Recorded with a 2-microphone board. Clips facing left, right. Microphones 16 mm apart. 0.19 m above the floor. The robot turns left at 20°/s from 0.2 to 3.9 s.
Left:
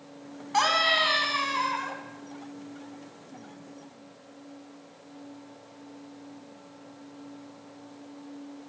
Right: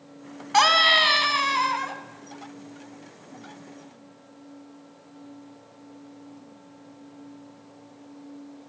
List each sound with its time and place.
0.5 s a scream: 30° right (ahead or behind), 1.2 m; by 2.0 s 20° right (ahead or behind), 1.2 m